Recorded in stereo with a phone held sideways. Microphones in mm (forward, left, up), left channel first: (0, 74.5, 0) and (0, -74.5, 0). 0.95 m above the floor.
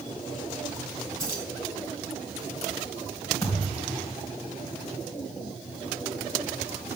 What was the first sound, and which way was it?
Keys jangling, 20° right (ahead or behind).